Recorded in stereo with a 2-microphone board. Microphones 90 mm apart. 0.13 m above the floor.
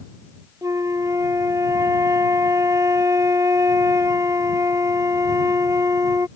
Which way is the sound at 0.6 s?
40° right (ahead or behind).